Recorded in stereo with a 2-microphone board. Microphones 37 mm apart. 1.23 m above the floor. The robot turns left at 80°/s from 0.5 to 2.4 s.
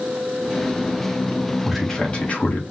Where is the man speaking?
175° right, 0.9 m; by 2.6 s 125° left, 0.9 m.